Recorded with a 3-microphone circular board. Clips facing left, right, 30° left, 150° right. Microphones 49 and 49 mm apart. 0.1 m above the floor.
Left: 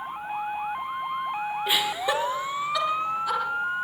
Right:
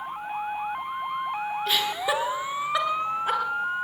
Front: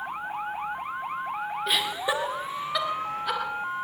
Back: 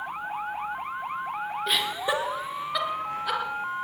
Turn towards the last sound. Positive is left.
turn(degrees=-60)